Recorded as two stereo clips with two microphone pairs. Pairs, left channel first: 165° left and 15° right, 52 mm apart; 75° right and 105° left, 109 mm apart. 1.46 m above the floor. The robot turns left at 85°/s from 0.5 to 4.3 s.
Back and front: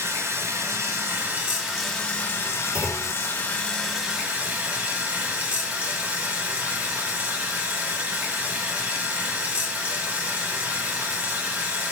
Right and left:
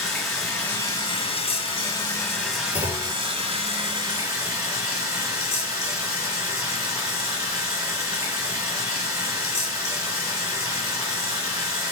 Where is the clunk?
85° right, 1.2 m; by 3.2 s 120° right, 1.2 m.